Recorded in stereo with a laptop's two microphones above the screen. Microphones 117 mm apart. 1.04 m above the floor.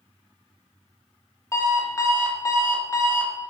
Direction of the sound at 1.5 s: 25° left (ahead or behind).